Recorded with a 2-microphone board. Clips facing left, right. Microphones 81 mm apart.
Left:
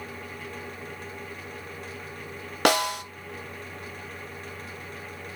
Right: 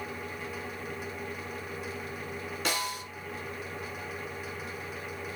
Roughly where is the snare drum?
Left.